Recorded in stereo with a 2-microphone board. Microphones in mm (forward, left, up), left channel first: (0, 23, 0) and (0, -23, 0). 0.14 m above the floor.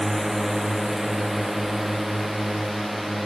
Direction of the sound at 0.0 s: 5° right (ahead or behind).